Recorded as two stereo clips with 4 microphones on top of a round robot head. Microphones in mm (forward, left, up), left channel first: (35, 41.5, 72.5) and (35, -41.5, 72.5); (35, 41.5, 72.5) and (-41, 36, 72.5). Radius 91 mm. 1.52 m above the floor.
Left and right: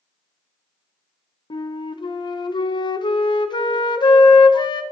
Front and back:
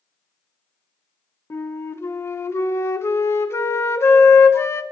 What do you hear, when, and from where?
1.5 s a flute: 60° left, 0.7 m